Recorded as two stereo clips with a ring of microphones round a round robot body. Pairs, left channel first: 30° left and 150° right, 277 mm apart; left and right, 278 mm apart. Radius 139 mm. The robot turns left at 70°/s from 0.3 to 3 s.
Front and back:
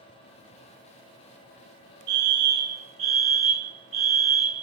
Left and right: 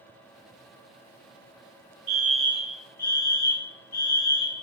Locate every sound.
2.1 s a fire alarm: 175° right, 2 m; by 4.6 s 120° left, 2 m